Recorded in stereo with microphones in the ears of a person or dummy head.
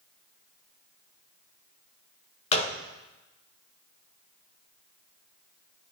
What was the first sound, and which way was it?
A gunshot, 35° left (ahead or behind).